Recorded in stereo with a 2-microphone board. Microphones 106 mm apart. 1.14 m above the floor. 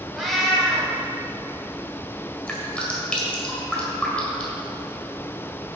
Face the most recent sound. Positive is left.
turn(degrees=10)  # may be behind; listen again after turning